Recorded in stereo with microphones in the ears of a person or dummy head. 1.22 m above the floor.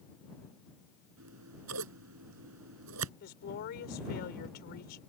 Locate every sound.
1.2 s scissors: 80° right
3.2 s a woman speaking: 50° left (ahead or behind)